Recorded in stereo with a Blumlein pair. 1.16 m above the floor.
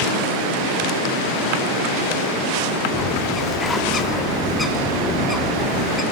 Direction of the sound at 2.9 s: 15° left.